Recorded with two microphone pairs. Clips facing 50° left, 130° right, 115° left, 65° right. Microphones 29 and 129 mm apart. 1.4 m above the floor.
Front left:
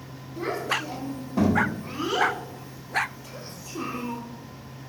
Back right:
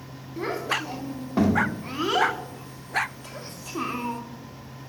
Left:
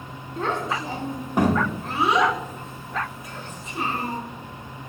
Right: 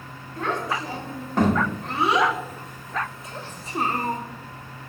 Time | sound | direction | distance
0.4 | a child speaking | 175° left | 2 m